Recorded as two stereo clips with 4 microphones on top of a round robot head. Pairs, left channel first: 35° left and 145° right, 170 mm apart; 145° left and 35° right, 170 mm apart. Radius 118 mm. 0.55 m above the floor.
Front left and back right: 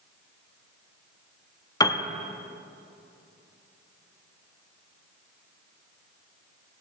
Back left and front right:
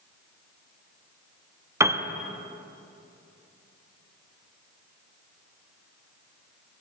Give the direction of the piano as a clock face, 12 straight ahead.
12 o'clock.